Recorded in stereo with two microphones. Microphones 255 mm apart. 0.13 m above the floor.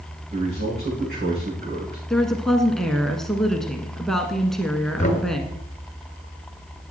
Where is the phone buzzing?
I don't hear a phone buzzing.